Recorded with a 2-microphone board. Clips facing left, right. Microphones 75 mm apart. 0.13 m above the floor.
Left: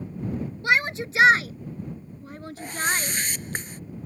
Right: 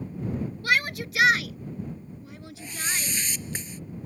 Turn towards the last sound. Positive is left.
turn(degrees=50)  # may be behind; listen again after turning